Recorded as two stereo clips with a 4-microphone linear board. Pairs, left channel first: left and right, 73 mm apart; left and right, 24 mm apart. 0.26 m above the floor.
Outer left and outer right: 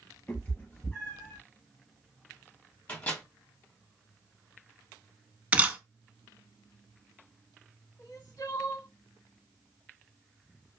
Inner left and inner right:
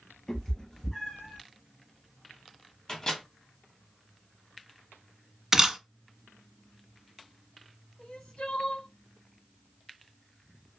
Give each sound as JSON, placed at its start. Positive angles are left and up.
{"t": 0.3, "sound": "a cat meowing", "side_deg": 25, "distance_m": 1.8}
{"t": 2.9, "sound": "a microwave", "side_deg": 20, "distance_m": 1.8}
{"t": 5.5, "sound": "a camera shutter", "side_deg": -20, "distance_m": 0.6}
{"t": 8.0, "sound": "crying", "side_deg": 55, "distance_m": 0.9}